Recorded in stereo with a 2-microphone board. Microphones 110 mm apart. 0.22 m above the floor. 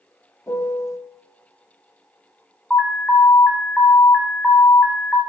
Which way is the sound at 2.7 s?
Centre (ahead or behind).